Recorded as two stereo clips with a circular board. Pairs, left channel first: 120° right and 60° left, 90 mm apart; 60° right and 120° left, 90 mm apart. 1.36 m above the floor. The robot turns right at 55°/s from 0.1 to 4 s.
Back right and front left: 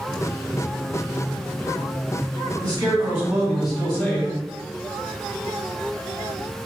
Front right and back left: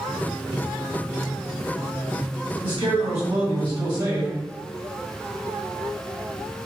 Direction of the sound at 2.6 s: 90° left.